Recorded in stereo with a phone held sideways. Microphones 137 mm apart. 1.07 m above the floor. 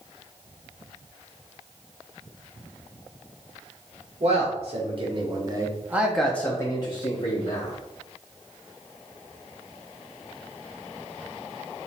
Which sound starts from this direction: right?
A man speaking, at 4.2 s.